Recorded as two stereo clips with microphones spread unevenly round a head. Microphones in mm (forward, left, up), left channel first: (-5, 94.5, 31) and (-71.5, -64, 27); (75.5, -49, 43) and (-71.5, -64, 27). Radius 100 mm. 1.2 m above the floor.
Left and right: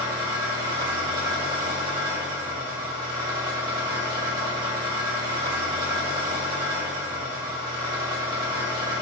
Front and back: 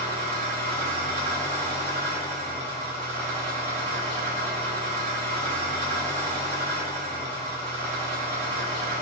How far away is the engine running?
About 1.8 m.